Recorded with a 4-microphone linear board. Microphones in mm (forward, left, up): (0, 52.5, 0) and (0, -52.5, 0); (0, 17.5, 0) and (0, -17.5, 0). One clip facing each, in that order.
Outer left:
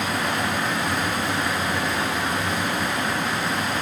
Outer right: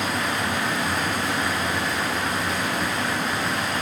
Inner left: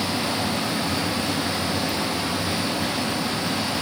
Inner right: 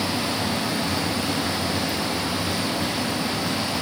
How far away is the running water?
About 4 m.